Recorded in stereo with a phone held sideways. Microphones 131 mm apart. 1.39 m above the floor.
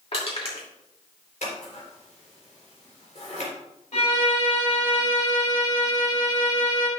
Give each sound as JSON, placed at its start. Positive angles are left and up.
{"t": 0.1, "sound": "crushing", "side_deg": 45, "distance_m": 2.5}
{"t": 1.4, "sound": "scissors", "side_deg": 75, "distance_m": 3.5}
{"t": 3.9, "sound": "a violin", "side_deg": 65, "distance_m": 3.5}